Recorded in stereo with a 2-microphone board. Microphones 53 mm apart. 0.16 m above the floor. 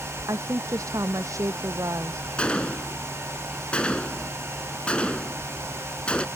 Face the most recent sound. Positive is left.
turn(degrees=20)  # may be behind; listen again after turning